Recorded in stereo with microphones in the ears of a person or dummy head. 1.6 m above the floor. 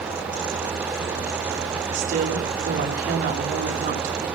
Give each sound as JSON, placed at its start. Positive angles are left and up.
{"t": 1.9, "sound": "a woman speaking", "side_deg": -45, "distance_m": 4.0}